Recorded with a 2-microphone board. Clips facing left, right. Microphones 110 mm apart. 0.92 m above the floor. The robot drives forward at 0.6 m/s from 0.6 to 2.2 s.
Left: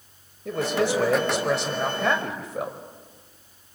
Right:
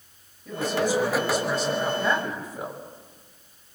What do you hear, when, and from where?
0.5 s a man speaking: 75° left (ahead or behind), 5 m; by 2.8 s 80° left, 4.5 m